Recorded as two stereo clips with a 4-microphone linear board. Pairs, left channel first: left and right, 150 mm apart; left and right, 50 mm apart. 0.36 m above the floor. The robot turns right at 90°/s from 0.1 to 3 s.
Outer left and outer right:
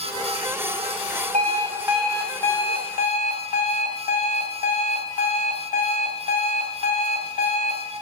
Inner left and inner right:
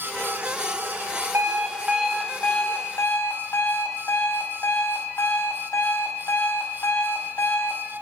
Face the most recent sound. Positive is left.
turn(degrees=90)